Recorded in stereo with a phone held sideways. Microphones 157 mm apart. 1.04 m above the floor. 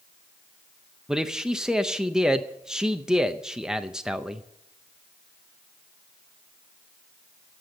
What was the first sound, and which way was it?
A man speaking, 5° right (ahead or behind).